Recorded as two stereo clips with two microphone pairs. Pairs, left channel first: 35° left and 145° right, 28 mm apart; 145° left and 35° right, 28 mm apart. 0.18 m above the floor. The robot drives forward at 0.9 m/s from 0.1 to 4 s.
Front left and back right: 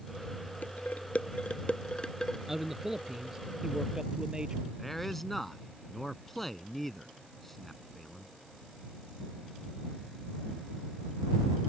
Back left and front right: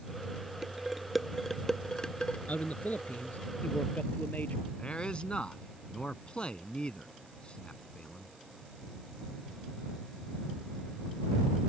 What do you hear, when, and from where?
0.6 s dishes clattering: 40° left; by 2.4 s 100° left
2.5 s a man speaking: 135° left; by 4.7 s 150° left
4.8 s a man speaking: 115° left